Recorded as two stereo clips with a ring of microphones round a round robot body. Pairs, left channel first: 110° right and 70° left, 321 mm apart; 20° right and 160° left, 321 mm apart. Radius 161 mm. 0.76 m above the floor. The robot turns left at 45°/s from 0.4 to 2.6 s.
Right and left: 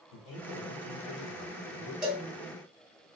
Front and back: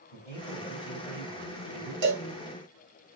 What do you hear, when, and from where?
0.1 s a man speaking: 95° right, 1.8 m; by 1.9 s 165° right, 1.8 m
2.0 s a cowbell: 155° left, 1.8 m; by 2.2 s 145° left, 1.8 m